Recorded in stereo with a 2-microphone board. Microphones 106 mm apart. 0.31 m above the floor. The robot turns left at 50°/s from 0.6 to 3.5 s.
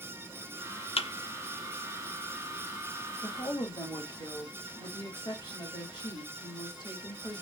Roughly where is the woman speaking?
Left.